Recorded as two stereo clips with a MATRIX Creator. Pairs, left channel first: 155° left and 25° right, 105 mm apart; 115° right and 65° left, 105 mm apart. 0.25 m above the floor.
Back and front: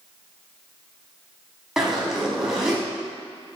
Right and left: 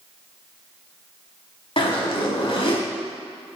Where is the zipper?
110° right, 0.9 m.